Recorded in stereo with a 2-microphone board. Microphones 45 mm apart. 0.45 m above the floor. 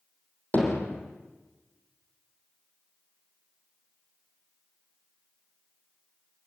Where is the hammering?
40° left (ahead or behind), 5.5 m.